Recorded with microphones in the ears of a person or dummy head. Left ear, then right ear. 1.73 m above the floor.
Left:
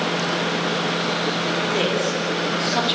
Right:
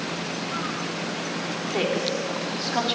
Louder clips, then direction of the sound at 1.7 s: Left 4 dB; centre (ahead or behind).